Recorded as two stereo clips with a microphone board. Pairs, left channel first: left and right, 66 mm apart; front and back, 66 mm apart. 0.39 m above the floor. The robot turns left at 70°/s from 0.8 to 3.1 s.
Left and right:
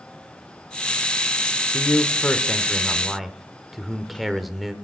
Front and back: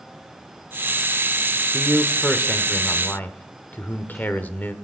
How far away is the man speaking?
About 0.9 m.